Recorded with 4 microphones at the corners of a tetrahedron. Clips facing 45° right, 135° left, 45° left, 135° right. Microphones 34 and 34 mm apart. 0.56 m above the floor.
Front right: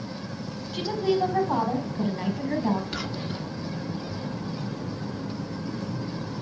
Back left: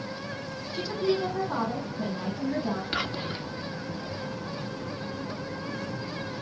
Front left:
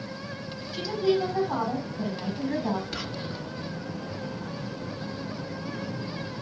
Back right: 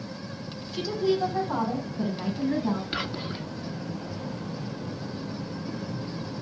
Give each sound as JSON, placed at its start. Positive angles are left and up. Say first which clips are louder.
{"t": 0.7, "sound": "a woman speaking", "louder": "front right 3 dB, front left 1 dB", "azimuth_deg": -35, "distance_m": 4.0}
{"t": 2.9, "sound": "whispering", "louder": "back left 1 dB, back right 2 dB", "azimuth_deg": 170, "distance_m": 0.7}